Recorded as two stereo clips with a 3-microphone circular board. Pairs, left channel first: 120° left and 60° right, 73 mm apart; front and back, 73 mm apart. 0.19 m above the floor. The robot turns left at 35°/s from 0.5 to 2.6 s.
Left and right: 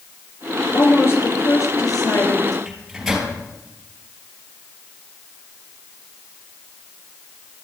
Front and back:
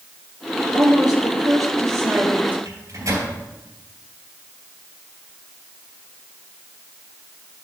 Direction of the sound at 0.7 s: Straight behind.